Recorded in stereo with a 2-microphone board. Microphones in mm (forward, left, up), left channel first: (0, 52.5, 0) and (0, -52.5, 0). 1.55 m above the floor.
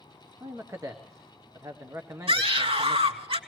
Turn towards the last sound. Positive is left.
turn(degrees=-65)  # may be behind; listen again after turning